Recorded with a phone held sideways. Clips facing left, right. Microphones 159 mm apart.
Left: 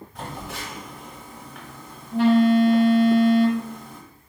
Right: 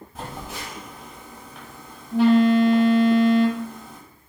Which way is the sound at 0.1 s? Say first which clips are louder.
Even; 5° right (ahead or behind).